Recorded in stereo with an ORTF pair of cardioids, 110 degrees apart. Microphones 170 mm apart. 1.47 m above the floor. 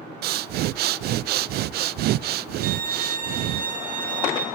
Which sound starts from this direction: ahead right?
A violin, at 2.6 s.